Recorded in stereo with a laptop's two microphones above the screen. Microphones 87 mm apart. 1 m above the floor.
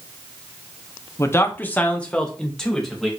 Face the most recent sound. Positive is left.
turn(degrees=5)  # may be behind; listen again after turning